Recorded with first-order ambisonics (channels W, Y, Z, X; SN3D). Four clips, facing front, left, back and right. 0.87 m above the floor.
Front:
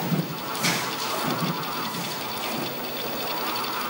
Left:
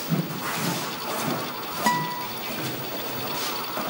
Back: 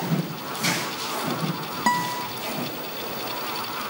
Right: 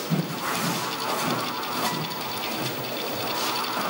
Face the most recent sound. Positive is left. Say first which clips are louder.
# left 4 dB, back 7 dB
turn(degrees=145)